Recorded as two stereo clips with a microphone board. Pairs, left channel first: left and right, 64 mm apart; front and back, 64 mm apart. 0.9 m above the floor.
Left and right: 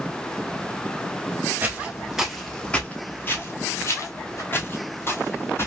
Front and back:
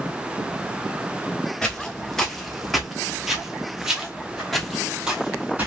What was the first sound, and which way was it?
Footsteps, 70° right.